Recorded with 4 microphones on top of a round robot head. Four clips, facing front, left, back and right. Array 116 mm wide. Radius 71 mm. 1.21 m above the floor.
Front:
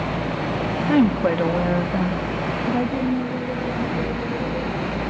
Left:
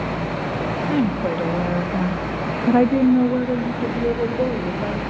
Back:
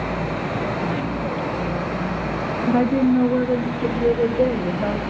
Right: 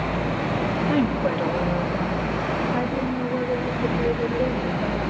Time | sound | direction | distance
0.9 | a woman speaking | 5° left | 2 m